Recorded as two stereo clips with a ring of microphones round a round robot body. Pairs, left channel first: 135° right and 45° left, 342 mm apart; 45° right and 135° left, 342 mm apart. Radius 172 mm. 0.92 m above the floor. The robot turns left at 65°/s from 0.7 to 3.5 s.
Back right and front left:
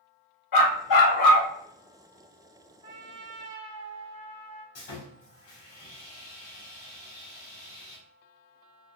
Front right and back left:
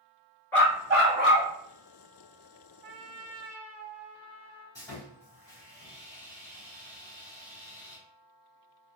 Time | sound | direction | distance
0.5 | a dog barking | 130° right | 0.9 m
2.8 | a trumpet | 125° left | 1.1 m
4.8 | sawing | 125° right | 1.8 m